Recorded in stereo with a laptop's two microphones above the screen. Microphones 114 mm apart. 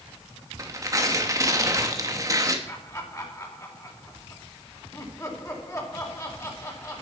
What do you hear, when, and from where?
0.6 s tearing paper: 30° right (ahead or behind), 1.1 m
2.7 s laughter: 25° left (ahead or behind), 4.5 m